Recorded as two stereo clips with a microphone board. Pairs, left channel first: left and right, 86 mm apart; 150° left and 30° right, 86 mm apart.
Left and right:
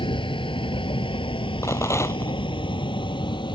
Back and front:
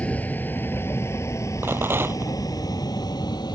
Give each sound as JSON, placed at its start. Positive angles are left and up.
{"t": 0.0, "sound": "a vehicle", "azimuth_deg": 75}
{"t": 1.6, "sound": "a rattle", "azimuth_deg": 35}